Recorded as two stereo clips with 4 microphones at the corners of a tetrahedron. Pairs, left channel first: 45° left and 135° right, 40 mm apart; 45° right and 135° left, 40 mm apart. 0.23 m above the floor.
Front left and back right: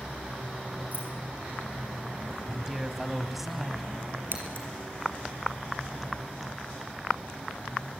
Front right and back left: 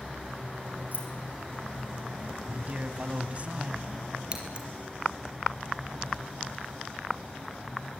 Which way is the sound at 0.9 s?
Straight behind.